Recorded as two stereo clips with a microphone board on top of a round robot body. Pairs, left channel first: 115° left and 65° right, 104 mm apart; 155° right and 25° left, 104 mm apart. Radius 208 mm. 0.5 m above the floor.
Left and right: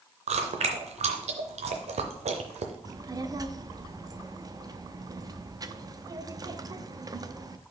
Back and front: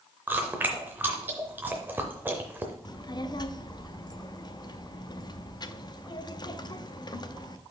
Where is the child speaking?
115° right, 0.8 m.